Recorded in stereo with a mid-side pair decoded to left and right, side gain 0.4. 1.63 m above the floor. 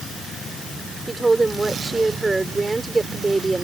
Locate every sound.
1.1 s a woman speaking: 20° right